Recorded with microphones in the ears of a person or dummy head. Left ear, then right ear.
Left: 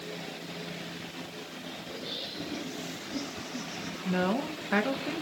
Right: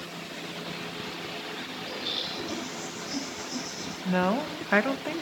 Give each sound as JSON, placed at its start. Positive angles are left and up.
{"t": 1.9, "sound": "laughter", "side_deg": -60, "distance_m": 9.5}
{"t": 4.0, "sound": "a woman speaking", "side_deg": -25, "distance_m": 2.0}